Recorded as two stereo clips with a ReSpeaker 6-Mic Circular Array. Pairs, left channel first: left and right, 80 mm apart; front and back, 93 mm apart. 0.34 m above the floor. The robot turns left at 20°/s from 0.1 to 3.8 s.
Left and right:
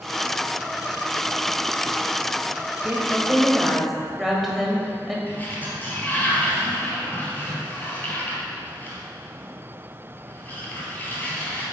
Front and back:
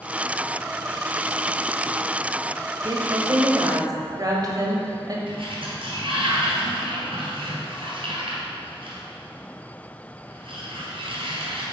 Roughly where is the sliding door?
Behind.